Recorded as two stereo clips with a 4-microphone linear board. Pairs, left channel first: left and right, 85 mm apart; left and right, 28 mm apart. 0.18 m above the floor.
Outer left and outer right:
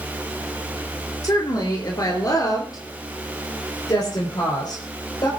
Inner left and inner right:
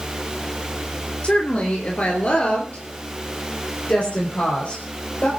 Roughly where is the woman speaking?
Left.